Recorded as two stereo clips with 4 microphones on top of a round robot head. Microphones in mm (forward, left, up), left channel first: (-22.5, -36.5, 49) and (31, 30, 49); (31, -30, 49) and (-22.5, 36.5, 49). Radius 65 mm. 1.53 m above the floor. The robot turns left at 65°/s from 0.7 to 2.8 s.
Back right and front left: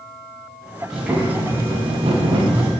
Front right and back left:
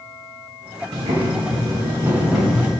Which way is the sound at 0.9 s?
140° left.